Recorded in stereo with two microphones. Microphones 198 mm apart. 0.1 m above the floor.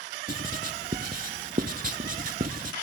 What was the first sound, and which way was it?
Writing, 45° right (ahead or behind).